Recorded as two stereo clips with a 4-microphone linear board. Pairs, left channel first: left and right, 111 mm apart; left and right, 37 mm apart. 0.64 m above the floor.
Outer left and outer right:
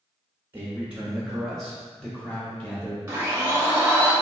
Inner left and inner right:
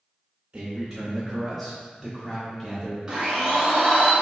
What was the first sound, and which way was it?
A man speaking, 15° right (ahead or behind).